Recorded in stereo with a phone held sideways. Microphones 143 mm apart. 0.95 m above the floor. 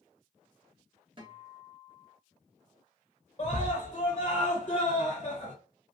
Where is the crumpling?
I don't hear crumpling.